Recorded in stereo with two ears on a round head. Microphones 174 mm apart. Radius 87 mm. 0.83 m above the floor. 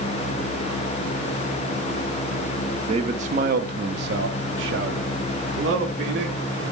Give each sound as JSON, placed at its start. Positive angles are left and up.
{"t": 2.9, "sound": "a man speaking", "side_deg": -30, "distance_m": 1.0}